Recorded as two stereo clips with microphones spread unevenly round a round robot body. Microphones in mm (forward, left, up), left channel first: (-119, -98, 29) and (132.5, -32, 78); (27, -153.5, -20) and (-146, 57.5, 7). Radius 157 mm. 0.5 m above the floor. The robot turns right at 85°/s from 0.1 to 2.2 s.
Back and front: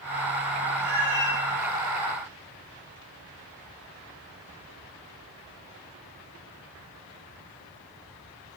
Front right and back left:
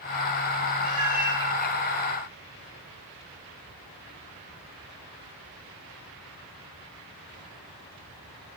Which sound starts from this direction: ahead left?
A cat meowing, at 0.8 s.